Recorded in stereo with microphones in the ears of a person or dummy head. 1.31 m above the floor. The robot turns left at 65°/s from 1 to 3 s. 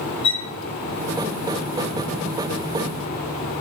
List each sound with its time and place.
0.2 s a violin: 25° left (ahead or behind), 0.9 m